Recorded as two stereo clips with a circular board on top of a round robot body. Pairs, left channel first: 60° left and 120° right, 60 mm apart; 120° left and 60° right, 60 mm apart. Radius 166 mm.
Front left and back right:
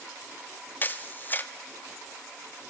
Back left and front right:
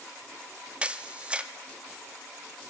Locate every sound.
0.8 s a camera shutter: 10° left, 0.7 m